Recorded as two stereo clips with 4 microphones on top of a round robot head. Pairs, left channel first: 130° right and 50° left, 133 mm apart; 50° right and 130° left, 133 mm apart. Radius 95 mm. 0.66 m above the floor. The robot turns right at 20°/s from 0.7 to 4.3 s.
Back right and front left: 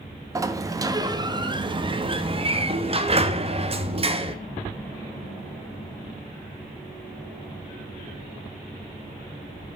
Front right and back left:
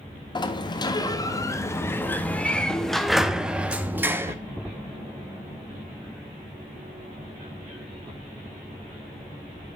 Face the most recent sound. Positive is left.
turn(degrees=65)